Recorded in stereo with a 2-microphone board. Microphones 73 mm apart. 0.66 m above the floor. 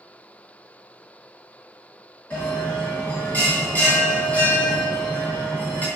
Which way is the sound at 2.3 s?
25° left (ahead or behind).